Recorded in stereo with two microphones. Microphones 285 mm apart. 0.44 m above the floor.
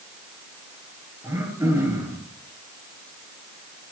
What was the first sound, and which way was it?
Throat clearing, 10° right (ahead or behind).